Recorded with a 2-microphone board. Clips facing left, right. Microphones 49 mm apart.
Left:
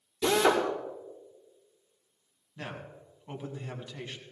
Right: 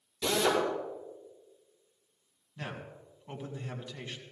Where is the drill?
30° left (ahead or behind), 5.5 m.